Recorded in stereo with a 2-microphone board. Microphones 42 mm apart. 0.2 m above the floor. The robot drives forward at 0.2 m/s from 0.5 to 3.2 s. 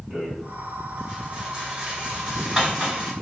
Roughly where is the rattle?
Centre.